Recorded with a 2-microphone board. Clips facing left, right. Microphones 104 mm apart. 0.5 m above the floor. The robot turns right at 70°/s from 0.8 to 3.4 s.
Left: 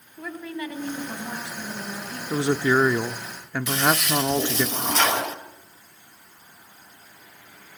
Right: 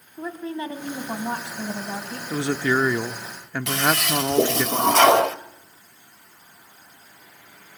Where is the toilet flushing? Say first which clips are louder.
Even; 75° right (ahead or behind), 1.0 m.